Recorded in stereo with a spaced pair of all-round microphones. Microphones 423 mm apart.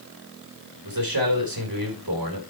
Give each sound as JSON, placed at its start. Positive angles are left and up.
{"t": 0.8, "sound": "a man speaking", "side_deg": -55, "distance_m": 4.0}